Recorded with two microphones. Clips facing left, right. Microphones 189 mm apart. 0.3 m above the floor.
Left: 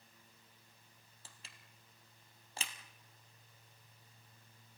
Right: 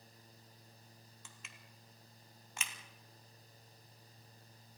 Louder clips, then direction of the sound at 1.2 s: Right 3 dB; 30° left (ahead or behind).